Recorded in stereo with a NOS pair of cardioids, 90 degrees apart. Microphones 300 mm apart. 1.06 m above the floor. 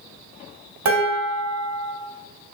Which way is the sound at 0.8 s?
70° right.